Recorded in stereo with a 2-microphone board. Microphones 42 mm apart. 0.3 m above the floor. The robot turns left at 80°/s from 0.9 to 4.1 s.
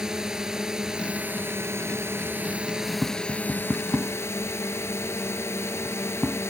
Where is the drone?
15° right; by 6.5 s 90° left.